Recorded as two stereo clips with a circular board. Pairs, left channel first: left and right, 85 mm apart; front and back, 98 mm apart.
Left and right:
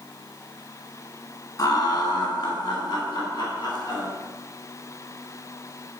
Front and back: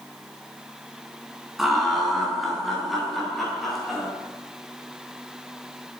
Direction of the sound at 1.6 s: 95° left.